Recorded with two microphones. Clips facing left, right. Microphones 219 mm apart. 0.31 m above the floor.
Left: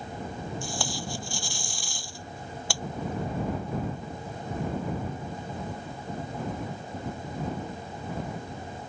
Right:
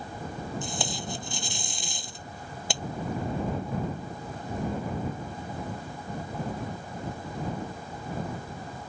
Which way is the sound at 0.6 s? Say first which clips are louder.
Even; 20° right (ahead or behind).